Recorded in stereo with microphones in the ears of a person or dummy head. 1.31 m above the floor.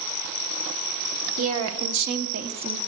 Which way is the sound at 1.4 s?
75° right (ahead or behind).